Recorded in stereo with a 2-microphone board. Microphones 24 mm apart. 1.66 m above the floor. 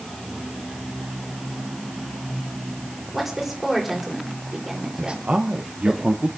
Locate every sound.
3.1 s a woman speaking: 10° right (ahead or behind), 6.5 m
5.0 s a man speaking: 55° right (ahead or behind), 1.3 m